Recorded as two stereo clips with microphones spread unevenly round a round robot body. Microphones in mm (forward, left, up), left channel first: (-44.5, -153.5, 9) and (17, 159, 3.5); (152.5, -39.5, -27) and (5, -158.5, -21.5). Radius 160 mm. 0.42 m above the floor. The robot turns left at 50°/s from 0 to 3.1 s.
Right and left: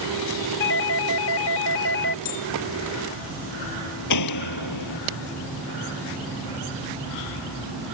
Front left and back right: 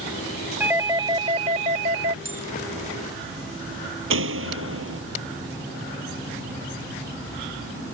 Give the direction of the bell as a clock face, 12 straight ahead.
4 o'clock.